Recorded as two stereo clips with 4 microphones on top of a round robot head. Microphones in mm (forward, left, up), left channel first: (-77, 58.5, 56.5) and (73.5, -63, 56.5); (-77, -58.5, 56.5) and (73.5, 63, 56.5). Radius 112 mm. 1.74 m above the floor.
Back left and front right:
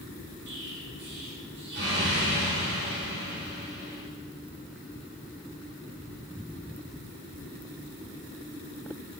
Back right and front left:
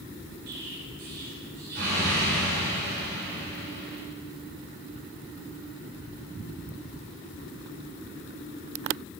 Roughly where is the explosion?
Ahead.